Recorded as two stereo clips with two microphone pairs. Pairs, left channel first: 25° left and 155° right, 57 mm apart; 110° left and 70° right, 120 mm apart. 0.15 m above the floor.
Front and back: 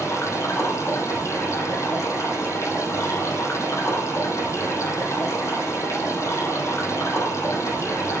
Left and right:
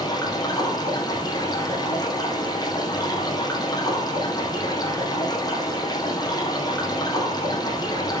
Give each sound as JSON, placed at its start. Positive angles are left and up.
{"t": 0.0, "sound": "running water", "azimuth_deg": 55, "distance_m": 4.0}